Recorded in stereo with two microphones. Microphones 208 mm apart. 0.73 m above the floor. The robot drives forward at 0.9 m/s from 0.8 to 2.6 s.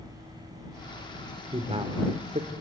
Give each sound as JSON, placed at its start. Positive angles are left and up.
{"t": 1.5, "sound": "a man speaking", "side_deg": -25, "distance_m": 2.5}